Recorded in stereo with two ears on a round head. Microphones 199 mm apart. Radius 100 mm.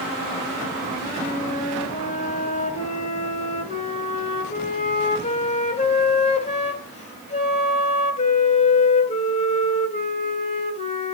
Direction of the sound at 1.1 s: 30° left (ahead or behind).